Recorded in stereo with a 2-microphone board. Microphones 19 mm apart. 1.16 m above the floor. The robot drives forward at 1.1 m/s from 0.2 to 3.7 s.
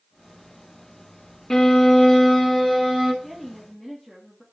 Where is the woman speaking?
15° left (ahead or behind), 2 m.